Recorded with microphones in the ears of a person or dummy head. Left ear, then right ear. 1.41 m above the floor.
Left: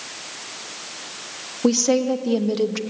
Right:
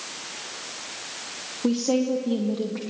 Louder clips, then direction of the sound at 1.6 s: Left 5 dB; 50° left (ahead or behind).